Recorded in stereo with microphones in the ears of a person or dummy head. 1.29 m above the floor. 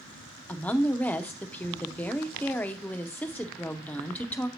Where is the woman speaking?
10° left (ahead or behind), 0.7 m.